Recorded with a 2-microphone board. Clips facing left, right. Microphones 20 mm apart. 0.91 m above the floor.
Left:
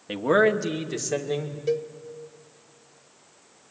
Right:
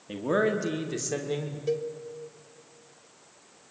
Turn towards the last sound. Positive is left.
turn(degrees=10)  # may be behind; listen again after turning